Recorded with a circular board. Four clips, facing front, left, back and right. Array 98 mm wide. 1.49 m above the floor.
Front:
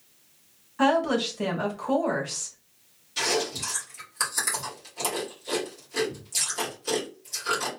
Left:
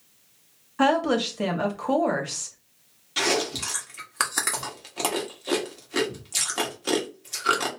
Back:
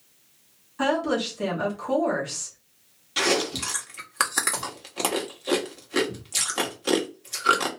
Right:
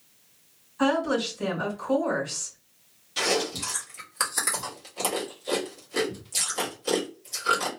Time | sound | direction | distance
0.8 | a woman speaking | 75° left | 1.5 m
3.2 | chewing | 150° left | 1.3 m